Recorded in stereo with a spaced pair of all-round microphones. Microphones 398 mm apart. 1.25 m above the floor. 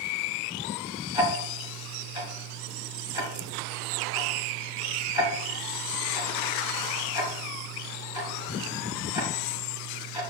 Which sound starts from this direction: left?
Ticking, at 1.1 s.